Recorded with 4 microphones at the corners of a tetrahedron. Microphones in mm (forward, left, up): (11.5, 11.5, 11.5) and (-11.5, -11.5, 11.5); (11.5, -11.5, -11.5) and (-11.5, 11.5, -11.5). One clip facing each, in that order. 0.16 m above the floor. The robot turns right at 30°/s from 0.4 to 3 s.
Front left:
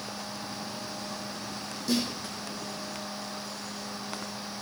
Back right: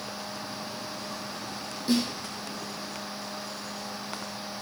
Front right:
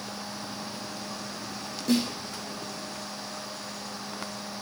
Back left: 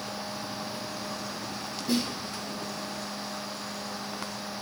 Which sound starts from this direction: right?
A snare drum, at 1.9 s.